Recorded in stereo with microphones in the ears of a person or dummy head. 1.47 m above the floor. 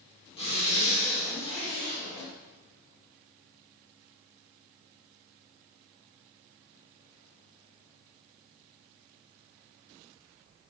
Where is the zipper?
30° left (ahead or behind), 4.5 m.